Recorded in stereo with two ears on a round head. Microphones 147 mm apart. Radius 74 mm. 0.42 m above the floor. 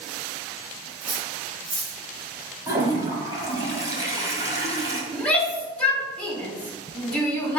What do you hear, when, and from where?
1.0 s cutlery clinking: 20° right (ahead or behind), 2.0 m
2.7 s a toilet flushing: 20° right (ahead or behind), 1.5 m
5.1 s a shout: 5° left (ahead or behind), 1.5 m